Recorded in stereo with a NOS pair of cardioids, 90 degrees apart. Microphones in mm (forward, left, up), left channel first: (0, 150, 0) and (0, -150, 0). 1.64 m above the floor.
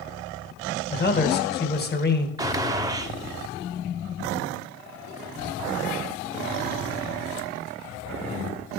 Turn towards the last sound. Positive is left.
turn(degrees=-10)